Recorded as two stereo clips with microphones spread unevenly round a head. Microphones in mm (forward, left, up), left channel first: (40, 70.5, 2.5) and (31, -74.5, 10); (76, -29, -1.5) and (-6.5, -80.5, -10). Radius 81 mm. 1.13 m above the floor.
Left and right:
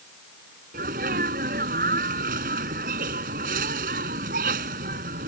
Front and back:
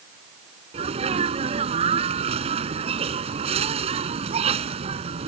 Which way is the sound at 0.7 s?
140° right.